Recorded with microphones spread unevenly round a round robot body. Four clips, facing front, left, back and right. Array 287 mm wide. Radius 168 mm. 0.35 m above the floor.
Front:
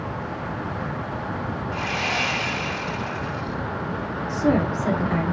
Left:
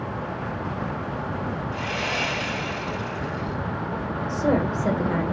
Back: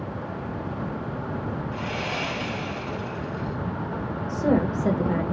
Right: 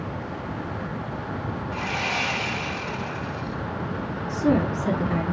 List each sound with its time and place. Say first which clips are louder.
1.7 s sawing: even, front 3 dB; 170° left, 2.5 m
4.3 s a woman speaking: right 1 dB, front 1 dB; 150° left, 1.4 m